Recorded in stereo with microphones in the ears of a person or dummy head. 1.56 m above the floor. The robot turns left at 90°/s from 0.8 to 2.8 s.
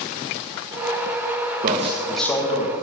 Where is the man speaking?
135° right, 1.9 m; by 2.7 s 130° left, 1.9 m.